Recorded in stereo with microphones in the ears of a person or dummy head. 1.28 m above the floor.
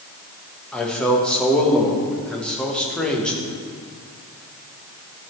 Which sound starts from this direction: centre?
A man speaking, at 0.7 s.